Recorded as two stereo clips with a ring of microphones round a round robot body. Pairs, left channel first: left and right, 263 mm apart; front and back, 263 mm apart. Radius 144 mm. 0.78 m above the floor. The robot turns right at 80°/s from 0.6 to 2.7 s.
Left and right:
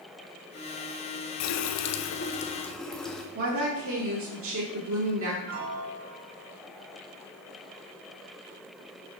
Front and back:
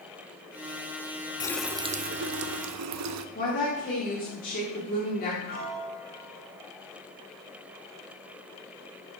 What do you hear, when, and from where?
1.4 s a running tap: 75° left, 0.5 m; by 3.2 s straight behind, 0.5 m
3.4 s a woman speaking: 60° right, 1.8 m
5.5 s a piano: 60° right, 3 m